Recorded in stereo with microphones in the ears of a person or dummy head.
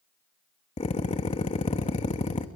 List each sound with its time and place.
0.8 s a drill: 30° left (ahead or behind), 1.1 m